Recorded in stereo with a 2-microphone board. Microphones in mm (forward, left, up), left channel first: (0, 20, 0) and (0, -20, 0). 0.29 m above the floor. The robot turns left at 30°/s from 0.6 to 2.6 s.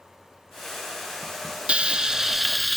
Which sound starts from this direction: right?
Frying, at 1.7 s.